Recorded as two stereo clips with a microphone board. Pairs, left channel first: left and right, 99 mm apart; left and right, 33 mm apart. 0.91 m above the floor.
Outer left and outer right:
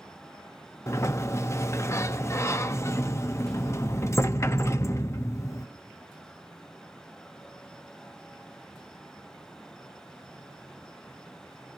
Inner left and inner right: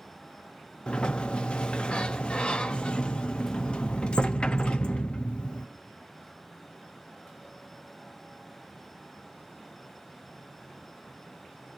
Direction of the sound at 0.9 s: 30° left (ahead or behind).